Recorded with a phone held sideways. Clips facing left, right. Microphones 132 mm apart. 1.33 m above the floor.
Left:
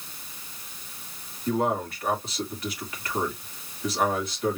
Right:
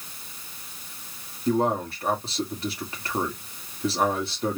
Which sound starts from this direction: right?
A man speaking, at 1.5 s.